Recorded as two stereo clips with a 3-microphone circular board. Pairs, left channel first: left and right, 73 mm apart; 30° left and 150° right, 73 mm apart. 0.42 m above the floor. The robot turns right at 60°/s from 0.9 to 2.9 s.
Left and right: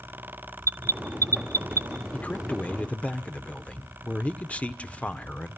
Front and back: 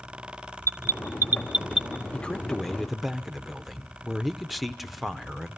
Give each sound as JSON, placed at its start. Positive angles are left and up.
{"t": 0.6, "sound": "an alarm", "azimuth_deg": -120, "distance_m": 1.4}
{"t": 2.1, "sound": "a man speaking", "azimuth_deg": 75, "distance_m": 0.8}